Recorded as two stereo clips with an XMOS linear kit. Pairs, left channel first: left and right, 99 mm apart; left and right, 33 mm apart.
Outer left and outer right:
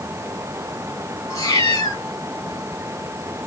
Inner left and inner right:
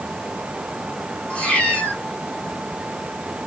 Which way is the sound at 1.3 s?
35° left (ahead or behind).